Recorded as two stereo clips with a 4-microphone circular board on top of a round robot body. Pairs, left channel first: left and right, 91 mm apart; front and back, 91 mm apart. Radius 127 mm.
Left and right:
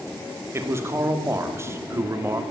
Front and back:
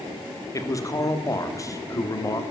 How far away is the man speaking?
About 1.8 m.